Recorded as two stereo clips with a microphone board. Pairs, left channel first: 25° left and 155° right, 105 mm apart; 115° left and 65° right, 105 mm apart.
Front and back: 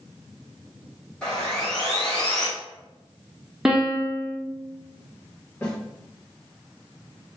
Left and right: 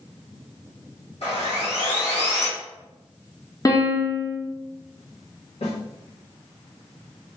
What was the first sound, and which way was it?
Sawing, 100° left.